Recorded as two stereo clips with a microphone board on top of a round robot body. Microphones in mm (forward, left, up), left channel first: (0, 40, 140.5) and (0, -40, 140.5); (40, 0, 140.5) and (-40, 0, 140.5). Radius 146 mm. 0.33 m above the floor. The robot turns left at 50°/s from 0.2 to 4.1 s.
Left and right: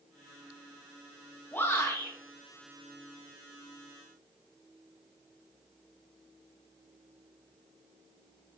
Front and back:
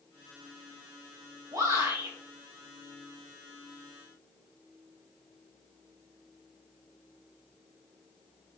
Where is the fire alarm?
No fire alarm in this recording.